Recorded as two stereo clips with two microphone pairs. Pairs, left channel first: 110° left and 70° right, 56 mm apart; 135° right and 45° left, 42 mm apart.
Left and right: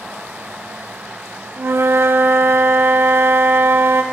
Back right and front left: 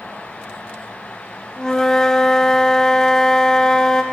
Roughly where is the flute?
Ahead right.